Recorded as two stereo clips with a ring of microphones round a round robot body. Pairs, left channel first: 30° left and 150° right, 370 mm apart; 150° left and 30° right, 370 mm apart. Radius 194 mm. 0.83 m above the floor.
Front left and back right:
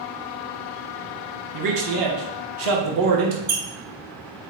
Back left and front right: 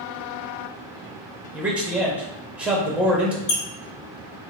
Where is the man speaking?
115° right, 1.0 m.